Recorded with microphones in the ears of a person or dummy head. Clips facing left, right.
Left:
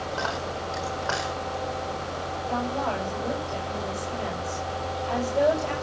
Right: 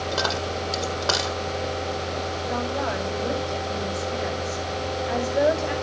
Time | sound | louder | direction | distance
0.1 | a dropped coin | right 4 dB | 55° right (ahead or behind) | 4 m
2.5 | a woman speaking | even | 20° right (ahead or behind) | 5.5 m